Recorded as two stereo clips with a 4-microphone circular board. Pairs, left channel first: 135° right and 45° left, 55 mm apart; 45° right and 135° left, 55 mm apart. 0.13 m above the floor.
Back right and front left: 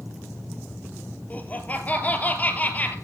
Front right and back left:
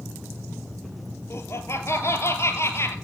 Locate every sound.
1.3 s laughter: 75° right, 3 m